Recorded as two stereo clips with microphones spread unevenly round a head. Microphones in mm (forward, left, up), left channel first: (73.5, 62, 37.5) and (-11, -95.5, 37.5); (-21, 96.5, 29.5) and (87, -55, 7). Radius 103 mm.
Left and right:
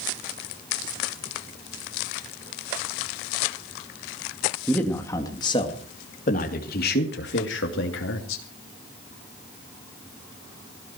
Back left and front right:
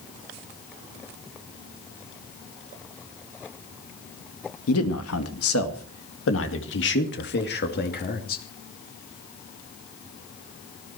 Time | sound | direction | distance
4.7 | a man speaking | 145° left | 2.5 m